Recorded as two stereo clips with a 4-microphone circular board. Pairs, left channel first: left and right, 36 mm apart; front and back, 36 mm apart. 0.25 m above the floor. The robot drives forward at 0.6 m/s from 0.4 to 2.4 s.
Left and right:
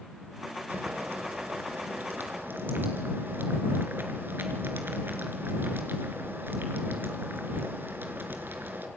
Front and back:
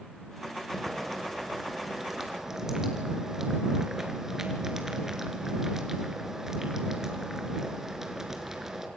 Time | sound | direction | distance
0.7 | boiling | 80° right | 3 m